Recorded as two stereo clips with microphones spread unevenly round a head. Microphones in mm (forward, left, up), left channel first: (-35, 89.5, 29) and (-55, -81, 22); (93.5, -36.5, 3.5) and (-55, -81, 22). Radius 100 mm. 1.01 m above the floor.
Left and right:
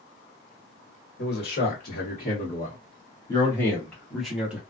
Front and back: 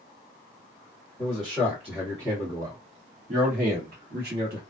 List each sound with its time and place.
1.2 s a man speaking: 95° left, 1.5 m; by 4.6 s 175° right, 1.3 m